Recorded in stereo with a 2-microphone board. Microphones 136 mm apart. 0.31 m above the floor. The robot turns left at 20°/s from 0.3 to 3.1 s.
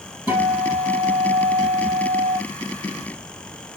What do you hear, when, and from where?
0.3 s a guitar: 10° right, 4.5 m; by 2.4 s 55° right, 4.5 m